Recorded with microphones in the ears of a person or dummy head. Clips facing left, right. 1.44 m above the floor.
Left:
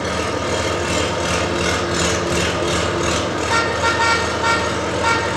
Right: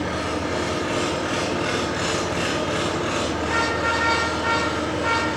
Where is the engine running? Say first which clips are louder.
Left 4 dB; 65° left (ahead or behind), 5 m.